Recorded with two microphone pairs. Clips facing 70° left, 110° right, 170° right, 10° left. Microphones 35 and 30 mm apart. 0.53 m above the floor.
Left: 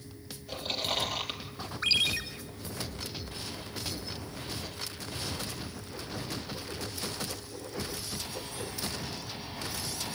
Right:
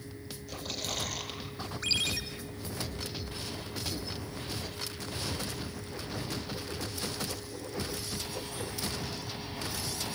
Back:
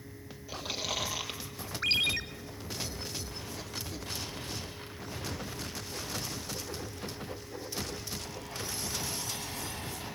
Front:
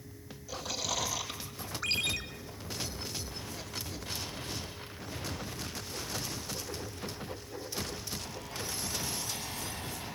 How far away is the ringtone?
About 1.5 m.